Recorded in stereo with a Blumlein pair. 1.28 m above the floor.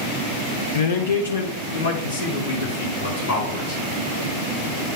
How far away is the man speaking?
About 0.8 m.